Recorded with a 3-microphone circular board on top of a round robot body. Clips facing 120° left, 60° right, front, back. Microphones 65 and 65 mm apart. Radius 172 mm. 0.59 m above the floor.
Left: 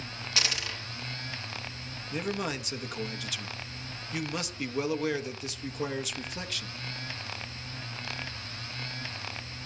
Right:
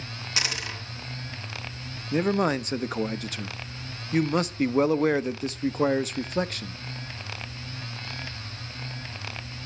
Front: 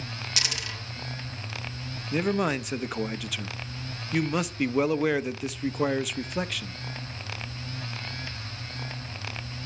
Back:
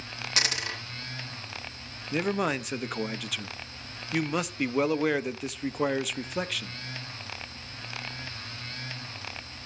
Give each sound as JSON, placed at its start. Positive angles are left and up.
{"t": 0.4, "sound": "a dropped coin", "azimuth_deg": -130, "distance_m": 3.5}
{"t": 2.1, "sound": "a man speaking", "azimuth_deg": -90, "distance_m": 0.9}